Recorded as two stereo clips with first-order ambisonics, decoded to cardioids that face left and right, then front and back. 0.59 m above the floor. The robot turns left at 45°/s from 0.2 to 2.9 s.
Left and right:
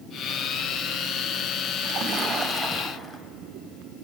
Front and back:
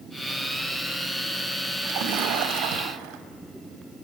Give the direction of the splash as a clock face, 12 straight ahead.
5 o'clock.